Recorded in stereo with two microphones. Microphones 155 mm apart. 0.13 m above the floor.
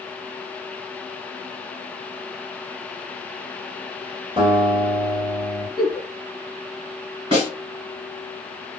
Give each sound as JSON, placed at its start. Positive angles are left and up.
{"t": 4.4, "sound": "a guitar", "side_deg": -35, "distance_m": 1.5}
{"t": 5.8, "sound": "a giggle", "side_deg": 30, "distance_m": 1.5}
{"t": 7.3, "sound": "a snare drum", "side_deg": -30, "distance_m": 1.9}